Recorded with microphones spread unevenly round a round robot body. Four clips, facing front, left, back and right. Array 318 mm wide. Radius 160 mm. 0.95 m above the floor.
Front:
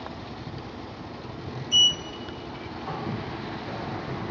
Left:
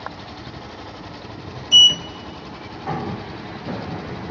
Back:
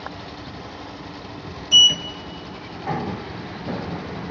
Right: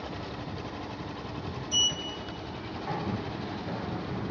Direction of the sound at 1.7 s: 140° left.